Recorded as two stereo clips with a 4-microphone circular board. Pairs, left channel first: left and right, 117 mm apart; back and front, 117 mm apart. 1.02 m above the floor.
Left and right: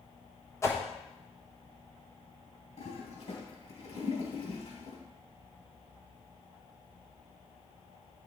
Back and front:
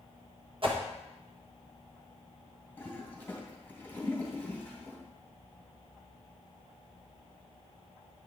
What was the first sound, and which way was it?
A whoosh, 30° left.